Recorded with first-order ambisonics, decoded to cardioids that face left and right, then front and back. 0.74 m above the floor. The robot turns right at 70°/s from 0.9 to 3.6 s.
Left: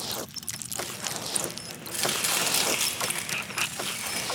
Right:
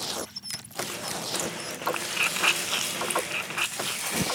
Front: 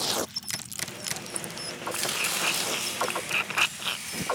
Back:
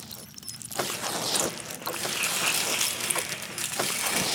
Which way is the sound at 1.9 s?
55° left.